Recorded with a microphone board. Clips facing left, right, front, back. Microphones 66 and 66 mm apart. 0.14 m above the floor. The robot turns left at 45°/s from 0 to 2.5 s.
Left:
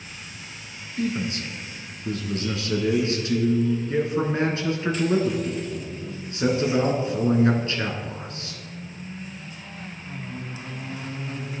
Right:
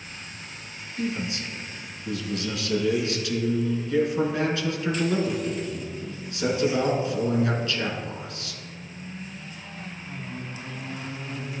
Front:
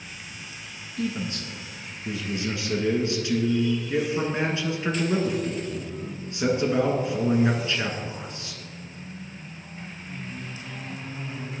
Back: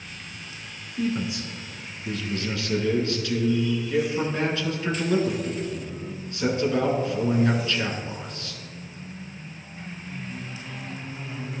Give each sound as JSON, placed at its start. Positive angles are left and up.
{"t": 1.0, "sound": "a man speaking", "azimuth_deg": 125, "distance_m": 1.3}